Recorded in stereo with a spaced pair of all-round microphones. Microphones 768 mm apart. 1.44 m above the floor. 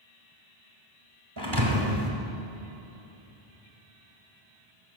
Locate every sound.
1.4 s a thud: 30° right (ahead or behind), 1.7 m